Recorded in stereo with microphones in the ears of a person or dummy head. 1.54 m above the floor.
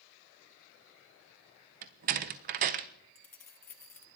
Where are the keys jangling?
15° left (ahead or behind), 0.6 m.